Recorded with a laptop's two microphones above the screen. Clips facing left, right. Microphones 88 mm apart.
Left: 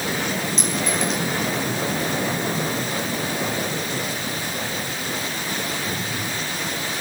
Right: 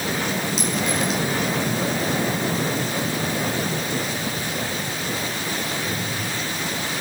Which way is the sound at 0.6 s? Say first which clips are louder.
Right 1 dB; 5° right (ahead or behind).